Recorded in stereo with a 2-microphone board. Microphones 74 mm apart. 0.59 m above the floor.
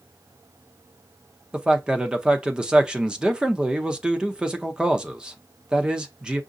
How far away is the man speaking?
About 0.7 m.